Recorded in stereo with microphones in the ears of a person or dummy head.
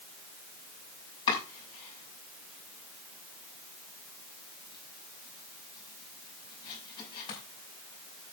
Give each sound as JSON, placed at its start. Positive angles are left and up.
{"t": 1.3, "sound": "chopping", "side_deg": 25, "distance_m": 6.0}